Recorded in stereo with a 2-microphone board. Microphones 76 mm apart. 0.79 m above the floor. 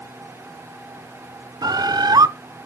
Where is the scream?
No scream in this recording.